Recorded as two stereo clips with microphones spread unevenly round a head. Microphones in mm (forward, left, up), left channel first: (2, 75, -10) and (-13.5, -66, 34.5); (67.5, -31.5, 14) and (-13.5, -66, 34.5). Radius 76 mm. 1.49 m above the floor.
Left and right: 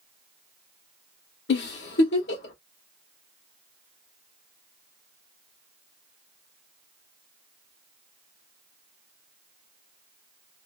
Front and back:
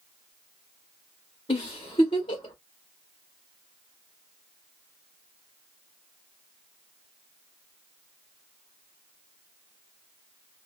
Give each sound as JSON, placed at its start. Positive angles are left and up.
{"t": 1.5, "sound": "a giggle", "azimuth_deg": 80, "distance_m": 1.0}